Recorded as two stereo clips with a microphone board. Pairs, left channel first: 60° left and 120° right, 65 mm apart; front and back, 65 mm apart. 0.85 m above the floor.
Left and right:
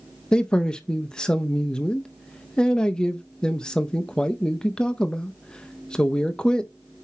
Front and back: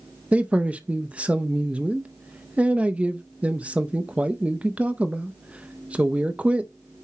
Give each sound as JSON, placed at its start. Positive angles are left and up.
{"t": 0.3, "sound": "a man speaking", "azimuth_deg": 130, "distance_m": 0.6}